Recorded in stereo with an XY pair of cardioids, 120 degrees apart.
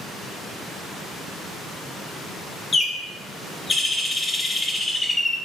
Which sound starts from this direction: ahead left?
A bird, at 2.7 s.